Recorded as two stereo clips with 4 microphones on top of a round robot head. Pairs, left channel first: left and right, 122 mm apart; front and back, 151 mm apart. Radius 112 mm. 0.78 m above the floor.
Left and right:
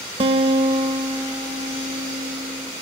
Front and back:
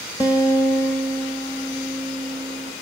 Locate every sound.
0.2 s a guitar: 65° right, 0.6 m